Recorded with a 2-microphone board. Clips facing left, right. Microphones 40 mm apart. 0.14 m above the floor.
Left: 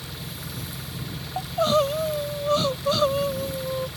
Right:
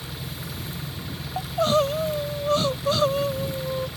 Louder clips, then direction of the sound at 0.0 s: Right 1 dB; 5° right (ahead or behind).